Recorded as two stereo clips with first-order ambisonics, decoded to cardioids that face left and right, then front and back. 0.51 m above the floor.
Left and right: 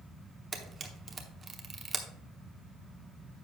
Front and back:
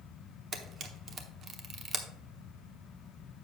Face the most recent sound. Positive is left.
turn(degrees=-145)